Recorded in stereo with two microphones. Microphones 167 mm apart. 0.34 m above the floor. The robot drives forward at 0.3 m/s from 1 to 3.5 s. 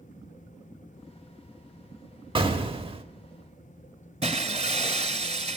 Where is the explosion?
30° right (ahead or behind), 0.9 m; by 3.0 s 35° right (ahead or behind), 0.9 m.